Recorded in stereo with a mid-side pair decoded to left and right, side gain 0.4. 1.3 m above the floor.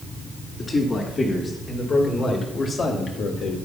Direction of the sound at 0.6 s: 40° left.